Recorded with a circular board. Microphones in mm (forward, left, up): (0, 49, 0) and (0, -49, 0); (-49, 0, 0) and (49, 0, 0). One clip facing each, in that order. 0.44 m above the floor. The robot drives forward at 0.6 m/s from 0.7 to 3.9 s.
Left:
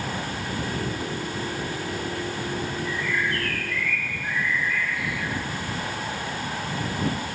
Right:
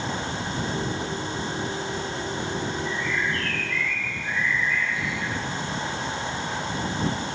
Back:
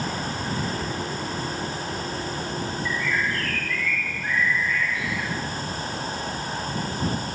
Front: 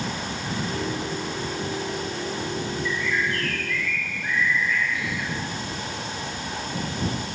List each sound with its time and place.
2.9 s a bird: 105° left, 3 m; by 5.3 s 115° left, 3 m